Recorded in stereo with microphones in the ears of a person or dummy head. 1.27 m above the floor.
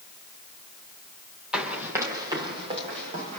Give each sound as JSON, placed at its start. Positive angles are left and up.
{"t": 1.5, "sound": "running footsteps", "side_deg": 0, "distance_m": 3.0}